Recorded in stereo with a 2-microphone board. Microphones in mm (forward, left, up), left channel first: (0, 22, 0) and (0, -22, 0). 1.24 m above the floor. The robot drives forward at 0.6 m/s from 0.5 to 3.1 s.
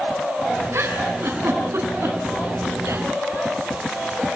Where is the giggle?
70° right (ahead or behind), 5.5 m; by 3.0 s 80° right, 5.5 m.